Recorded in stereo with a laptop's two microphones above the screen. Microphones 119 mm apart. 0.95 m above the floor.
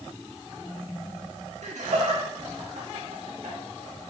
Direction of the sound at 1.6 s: 70° right (ahead or behind).